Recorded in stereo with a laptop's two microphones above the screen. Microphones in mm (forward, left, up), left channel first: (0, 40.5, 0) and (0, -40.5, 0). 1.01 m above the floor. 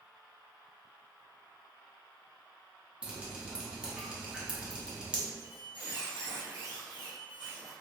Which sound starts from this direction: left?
A squeak, at 5.4 s.